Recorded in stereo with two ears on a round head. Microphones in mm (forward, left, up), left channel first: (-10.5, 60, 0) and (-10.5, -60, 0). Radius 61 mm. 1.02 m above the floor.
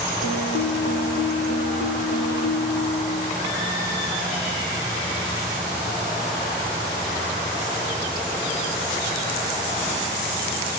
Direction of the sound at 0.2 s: 70° left (ahead or behind).